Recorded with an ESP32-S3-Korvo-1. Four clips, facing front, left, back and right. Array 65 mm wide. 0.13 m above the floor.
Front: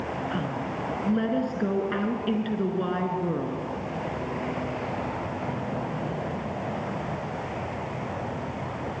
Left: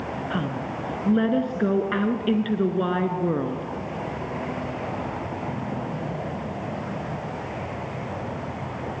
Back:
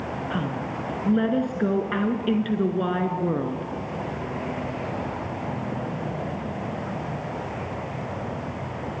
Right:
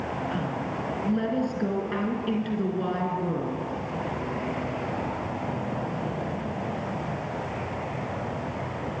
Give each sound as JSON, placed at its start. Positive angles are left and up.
{"t": 0.3, "sound": "a woman speaking", "azimuth_deg": 115, "distance_m": 1.4}